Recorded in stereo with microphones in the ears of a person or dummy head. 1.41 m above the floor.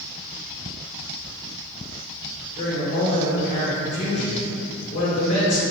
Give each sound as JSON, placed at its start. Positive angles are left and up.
{"t": 2.5, "sound": "a woman speaking", "side_deg": 40, "distance_m": 1.5}